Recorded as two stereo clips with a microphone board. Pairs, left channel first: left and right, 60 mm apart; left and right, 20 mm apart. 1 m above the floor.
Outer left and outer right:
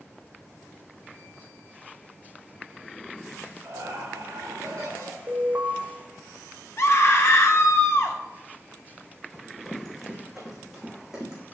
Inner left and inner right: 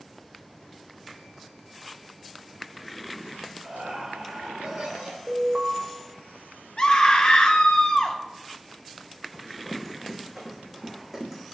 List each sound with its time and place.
3.6 s laughter: 60° right (ahead or behind), 4 m; by 5.2 s 75° right (ahead or behind), 4 m
5.3 s an alarm: 45° right (ahead or behind), 1.3 m
6.8 s a scream: 50° left (ahead or behind), 1.3 m
9.3 s running footsteps: 5° left (ahead or behind), 3 m; by 11.4 s 10° right (ahead or behind), 4 m